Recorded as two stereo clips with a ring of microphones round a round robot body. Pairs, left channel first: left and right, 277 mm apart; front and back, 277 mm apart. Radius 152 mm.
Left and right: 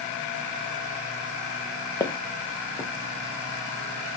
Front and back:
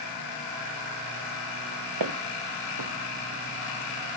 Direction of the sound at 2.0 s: 170° left.